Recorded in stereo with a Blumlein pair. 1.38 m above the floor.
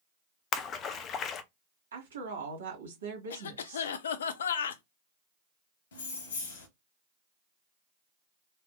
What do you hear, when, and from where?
0.5 s a splash: 30° left, 0.5 m
1.9 s a woman speaking: 65° right, 1.7 m
3.3 s a cough: 65° left, 0.5 m
5.9 s keys jangling: 60° left, 0.9 m